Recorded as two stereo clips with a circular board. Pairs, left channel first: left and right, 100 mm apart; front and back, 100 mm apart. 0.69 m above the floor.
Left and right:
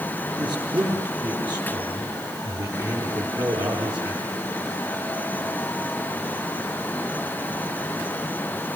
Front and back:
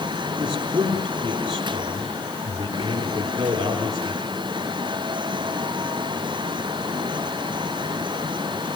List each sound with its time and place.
0.4 s a man speaking: 130° right, 8.5 m